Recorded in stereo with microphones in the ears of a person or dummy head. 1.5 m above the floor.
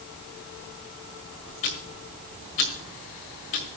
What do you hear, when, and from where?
1.6 s ticking: 35° left (ahead or behind), 1.5 m